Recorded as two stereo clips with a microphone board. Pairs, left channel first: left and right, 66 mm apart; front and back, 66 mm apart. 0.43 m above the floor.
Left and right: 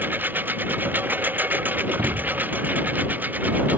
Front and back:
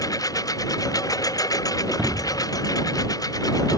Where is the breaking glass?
110° right.